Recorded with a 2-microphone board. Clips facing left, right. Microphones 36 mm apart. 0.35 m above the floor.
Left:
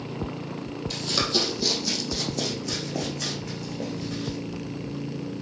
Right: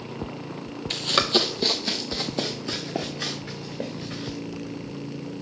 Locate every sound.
0.9 s running footsteps: 50° right (ahead or behind), 0.7 m; by 4.4 s 25° right (ahead or behind), 2.5 m